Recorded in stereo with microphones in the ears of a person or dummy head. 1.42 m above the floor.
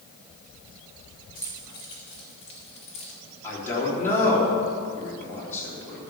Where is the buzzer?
I don't hear a buzzer.